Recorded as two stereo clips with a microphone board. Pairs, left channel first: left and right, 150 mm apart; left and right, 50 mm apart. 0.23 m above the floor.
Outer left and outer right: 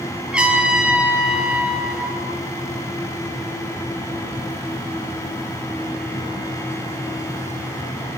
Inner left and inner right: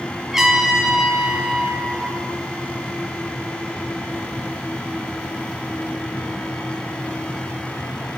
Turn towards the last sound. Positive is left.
turn(degrees=-5)  # may be behind; listen again after turning